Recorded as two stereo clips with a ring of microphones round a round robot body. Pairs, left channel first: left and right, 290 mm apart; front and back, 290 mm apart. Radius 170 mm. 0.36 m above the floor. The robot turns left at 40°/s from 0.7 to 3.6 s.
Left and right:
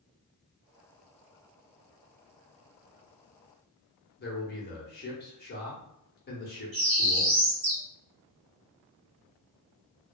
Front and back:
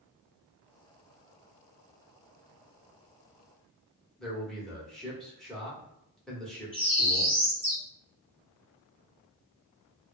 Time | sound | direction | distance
4.2 | a man speaking | 85° left | 1.2 m
6.7 | a bird | 95° right | 1.6 m